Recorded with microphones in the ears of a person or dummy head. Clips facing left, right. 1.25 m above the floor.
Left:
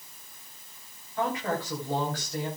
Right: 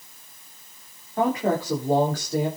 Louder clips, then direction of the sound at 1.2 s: Right 7 dB; 35° right (ahead or behind).